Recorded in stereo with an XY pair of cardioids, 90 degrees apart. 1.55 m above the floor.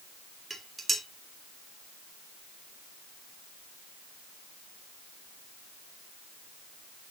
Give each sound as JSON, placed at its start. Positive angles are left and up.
{"t": 0.5, "sound": "dishes clattering", "azimuth_deg": -30, "distance_m": 2.5}